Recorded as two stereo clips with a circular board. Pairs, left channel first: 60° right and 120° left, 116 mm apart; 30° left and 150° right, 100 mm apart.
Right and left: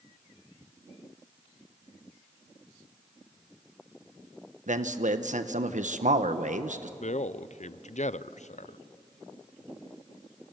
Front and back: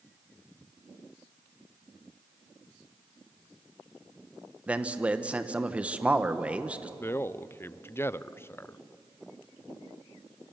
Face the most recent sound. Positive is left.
turn(degrees=-40)